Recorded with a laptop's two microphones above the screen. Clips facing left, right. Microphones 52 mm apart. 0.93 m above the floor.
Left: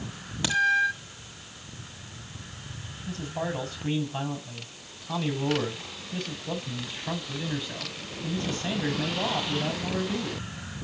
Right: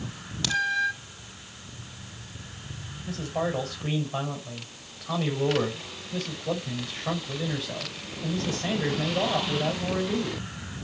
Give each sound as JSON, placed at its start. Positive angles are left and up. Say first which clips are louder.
{"t": 0.4, "sound": "a crack", "louder": "left 1 dB", "side_deg": 20, "distance_m": 2.0}
{"t": 3.0, "sound": "a man speaking", "louder": "right 3 dB", "side_deg": -70, "distance_m": 5.5}